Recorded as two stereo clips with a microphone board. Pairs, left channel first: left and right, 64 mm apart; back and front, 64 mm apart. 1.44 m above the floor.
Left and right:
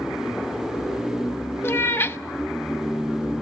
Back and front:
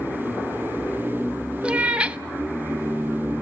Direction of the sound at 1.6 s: 65° left.